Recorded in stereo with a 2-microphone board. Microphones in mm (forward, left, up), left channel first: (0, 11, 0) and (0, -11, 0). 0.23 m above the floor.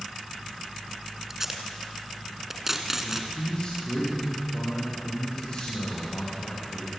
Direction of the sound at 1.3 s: 15° right (ahead or behind).